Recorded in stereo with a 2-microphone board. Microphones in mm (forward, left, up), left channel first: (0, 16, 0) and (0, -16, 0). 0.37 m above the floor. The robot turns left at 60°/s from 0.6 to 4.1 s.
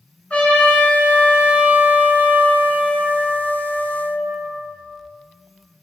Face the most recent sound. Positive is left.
turn(degrees=180)